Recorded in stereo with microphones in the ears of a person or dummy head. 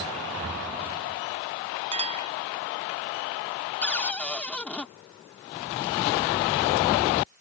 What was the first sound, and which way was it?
A clink, 30° right (ahead or behind).